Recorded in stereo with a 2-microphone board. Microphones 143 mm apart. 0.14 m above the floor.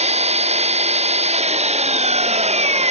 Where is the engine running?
50° right (ahead or behind).